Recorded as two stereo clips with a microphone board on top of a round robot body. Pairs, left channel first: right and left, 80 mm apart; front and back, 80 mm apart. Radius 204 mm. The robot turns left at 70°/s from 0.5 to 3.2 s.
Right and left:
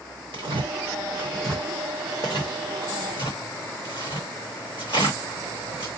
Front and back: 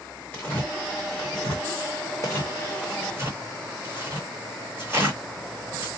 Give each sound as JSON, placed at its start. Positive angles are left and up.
{"t": 0.3, "sound": "tearing paper", "azimuth_deg": 70, "distance_m": 0.6}